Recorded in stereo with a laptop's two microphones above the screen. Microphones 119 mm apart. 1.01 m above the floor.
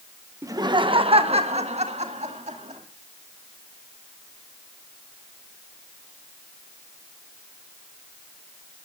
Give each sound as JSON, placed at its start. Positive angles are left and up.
{"t": 0.4, "sound": "laughter", "side_deg": -25, "distance_m": 0.8}